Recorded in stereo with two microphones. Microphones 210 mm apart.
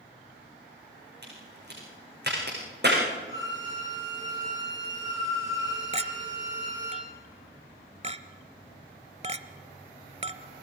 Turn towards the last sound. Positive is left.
turn(degrees=-30)  # may be behind; listen again after turning